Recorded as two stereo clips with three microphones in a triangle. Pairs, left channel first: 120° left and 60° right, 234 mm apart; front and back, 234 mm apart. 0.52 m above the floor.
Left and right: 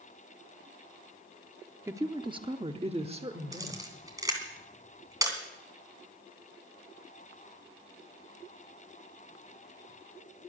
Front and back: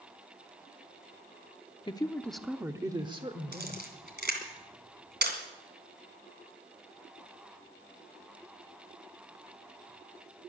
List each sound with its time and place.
1.9 s a woman speaking: 5° right, 0.7 m; by 4.5 s 125° right, 2.0 m
3.5 s a camera shutter: 135° right, 2.5 m